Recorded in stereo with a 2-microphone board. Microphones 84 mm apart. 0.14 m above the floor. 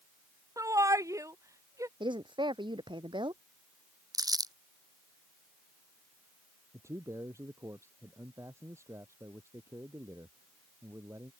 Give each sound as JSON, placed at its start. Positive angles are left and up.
{"t": 0.6, "sound": "a shout", "side_deg": -40}
{"t": 2.0, "sound": "a woman speaking", "side_deg": -70}
{"t": 4.1, "sound": "crumpling", "side_deg": -50}
{"t": 6.7, "sound": "a man speaking", "side_deg": -35}